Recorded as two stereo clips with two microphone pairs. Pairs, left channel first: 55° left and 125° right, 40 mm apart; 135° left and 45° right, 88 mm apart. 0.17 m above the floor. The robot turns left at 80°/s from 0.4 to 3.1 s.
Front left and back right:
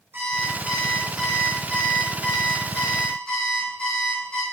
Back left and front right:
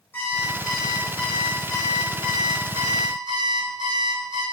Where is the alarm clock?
155° right, 3.5 m; by 4.4 s 15° right, 3.5 m.